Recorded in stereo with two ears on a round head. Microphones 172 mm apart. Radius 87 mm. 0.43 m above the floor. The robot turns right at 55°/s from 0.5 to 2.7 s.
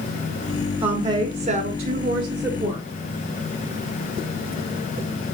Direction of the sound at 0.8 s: 120° right.